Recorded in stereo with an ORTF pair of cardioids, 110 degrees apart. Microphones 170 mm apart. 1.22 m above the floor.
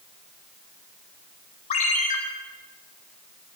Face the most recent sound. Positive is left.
turn(degrees=50)